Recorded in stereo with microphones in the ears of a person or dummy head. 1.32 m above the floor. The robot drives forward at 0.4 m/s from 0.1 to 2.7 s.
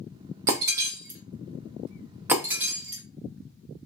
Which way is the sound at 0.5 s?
15° right (ahead or behind).